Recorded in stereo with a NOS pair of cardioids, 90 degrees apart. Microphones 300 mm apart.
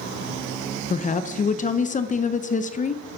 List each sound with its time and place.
0.9 s a woman speaking: 25° left, 0.6 m